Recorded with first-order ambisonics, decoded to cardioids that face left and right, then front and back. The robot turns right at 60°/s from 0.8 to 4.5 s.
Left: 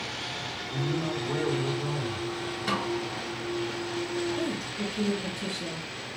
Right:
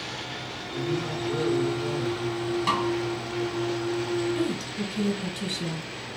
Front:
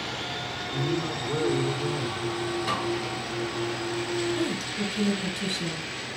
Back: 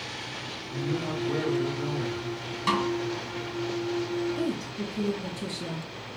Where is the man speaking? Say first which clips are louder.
Right 3 dB, front 1 dB; 140° left, 3 m; by 2.2 s 135° right, 3 m.